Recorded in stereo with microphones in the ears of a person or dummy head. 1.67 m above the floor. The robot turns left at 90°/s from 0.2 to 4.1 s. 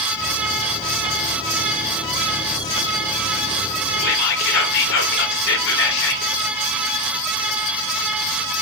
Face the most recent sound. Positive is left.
turn(degrees=60)  # may be behind; listen again after turning